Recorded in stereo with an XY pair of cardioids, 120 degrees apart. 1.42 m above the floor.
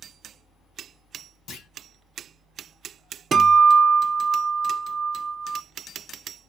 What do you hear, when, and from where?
1.5 s a clunk: 65° left, 1.0 m
3.3 s a guitar: 40° right, 0.7 m